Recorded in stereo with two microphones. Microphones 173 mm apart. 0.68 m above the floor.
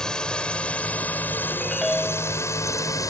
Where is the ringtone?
Centre (ahead or behind).